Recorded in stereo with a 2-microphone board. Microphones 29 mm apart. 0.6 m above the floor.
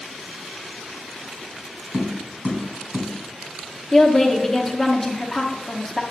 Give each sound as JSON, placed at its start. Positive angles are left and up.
{"t": 1.9, "sound": "tapping", "side_deg": -75, "distance_m": 2.0}
{"t": 3.9, "sound": "a woman speaking", "side_deg": 10, "distance_m": 0.7}